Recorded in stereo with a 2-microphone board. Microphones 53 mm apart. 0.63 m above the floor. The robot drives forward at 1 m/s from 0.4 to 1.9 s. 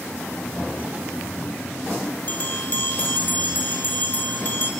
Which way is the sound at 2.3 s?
45° left (ahead or behind).